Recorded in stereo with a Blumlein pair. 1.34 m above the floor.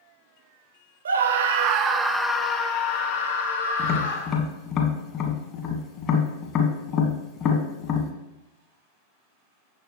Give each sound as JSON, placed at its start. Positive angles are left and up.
{"t": 1.1, "sound": "a scream", "azimuth_deg": -70, "distance_m": 0.9}
{"t": 3.8, "sound": "tapping", "azimuth_deg": 35, "distance_m": 1.2}